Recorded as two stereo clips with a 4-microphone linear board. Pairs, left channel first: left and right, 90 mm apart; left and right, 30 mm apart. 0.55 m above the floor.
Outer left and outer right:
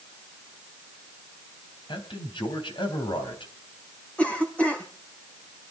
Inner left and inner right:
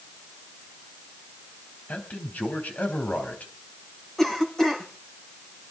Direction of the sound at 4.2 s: 15° left (ahead or behind).